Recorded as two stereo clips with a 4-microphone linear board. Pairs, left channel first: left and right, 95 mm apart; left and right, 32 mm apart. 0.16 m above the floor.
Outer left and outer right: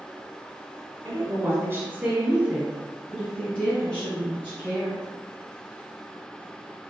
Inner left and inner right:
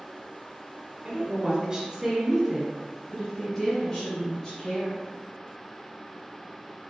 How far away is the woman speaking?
About 1.3 m.